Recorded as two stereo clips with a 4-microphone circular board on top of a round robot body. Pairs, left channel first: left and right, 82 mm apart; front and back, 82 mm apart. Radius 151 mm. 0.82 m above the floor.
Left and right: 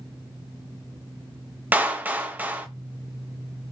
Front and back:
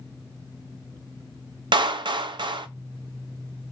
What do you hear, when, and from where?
1.7 s a clap: 160° right, 0.5 m